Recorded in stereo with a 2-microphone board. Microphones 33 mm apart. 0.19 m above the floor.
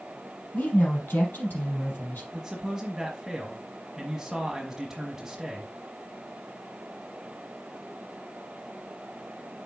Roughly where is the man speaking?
Centre.